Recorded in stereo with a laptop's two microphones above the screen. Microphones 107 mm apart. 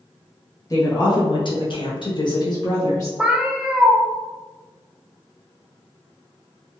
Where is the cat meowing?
10° right (ahead or behind), 0.5 m.